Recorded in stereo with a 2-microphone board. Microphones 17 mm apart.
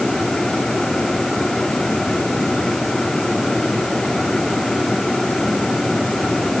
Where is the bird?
No bird in this recording.